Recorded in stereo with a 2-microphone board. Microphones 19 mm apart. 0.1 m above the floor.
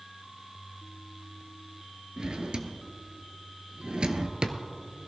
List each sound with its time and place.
2.2 s a drawer: 50° right (ahead or behind), 0.9 m